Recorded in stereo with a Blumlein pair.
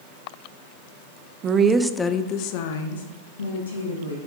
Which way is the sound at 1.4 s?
30° right.